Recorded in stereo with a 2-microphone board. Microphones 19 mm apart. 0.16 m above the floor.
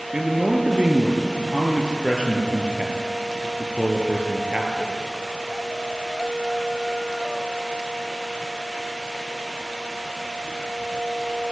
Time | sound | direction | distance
0.1 | a man speaking | 50° right (ahead or behind) | 4 m